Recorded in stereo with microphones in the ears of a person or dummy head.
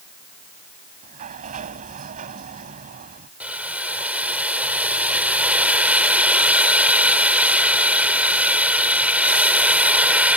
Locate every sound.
1.0 s a sliding door: 45° right (ahead or behind)
3.4 s boiling: 10° right (ahead or behind)